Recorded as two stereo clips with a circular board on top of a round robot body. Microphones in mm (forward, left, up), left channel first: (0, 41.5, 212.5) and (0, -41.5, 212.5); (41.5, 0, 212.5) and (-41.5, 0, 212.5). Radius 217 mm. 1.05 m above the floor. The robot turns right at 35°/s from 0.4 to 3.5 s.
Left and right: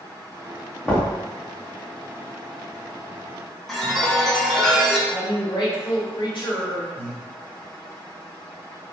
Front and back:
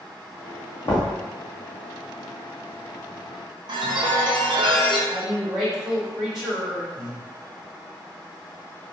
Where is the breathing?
75° left, 1.0 m.